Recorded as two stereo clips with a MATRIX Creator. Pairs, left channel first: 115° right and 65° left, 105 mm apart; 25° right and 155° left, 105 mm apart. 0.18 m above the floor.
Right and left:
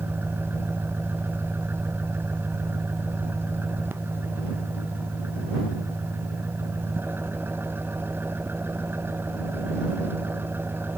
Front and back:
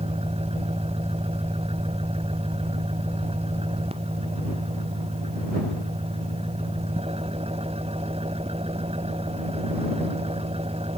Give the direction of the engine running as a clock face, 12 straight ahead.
7 o'clock.